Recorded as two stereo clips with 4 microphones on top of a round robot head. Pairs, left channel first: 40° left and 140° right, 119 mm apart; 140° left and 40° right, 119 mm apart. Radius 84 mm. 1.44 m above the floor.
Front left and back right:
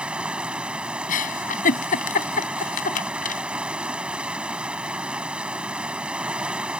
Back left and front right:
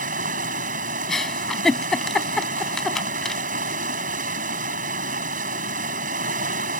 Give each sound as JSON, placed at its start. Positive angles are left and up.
{"t": 0.0, "sound": "running water", "azimuth_deg": -55}
{"t": 1.1, "sound": "a giggle", "azimuth_deg": 50}